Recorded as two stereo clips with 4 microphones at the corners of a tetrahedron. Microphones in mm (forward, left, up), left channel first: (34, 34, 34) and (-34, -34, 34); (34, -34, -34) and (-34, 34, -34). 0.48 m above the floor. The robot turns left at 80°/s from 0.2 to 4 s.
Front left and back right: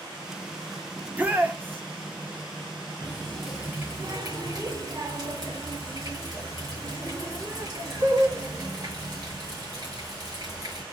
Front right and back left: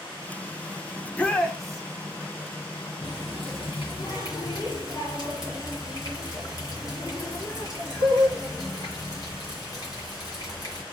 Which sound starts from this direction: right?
A shout, at 1.0 s.